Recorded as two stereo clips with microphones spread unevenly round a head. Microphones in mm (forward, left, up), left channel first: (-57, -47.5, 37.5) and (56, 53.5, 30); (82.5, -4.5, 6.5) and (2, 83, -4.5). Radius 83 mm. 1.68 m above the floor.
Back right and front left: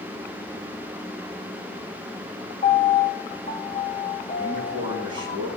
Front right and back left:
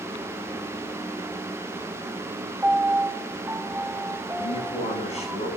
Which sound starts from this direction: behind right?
A piano, at 2.6 s.